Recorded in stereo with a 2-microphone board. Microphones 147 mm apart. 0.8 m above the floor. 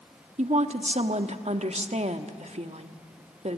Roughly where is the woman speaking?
Right.